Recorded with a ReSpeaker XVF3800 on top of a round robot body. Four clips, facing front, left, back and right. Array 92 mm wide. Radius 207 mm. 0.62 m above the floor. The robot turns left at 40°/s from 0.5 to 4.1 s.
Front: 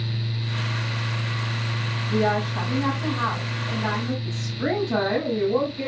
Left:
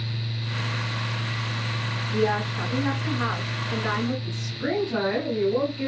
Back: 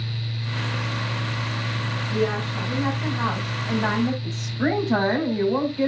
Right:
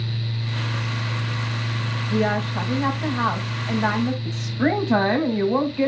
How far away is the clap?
No clap in this recording.